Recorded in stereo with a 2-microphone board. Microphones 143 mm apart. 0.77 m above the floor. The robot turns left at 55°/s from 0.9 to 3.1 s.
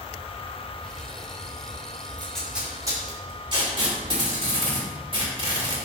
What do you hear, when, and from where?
2.2 s tape being pulled: 10° left (ahead or behind), 2.5 m; by 5.8 s 35° right (ahead or behind), 2.5 m